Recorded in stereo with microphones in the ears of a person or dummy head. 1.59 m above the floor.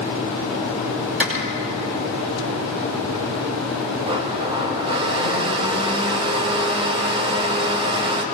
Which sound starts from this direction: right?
A blender, at 4.0 s.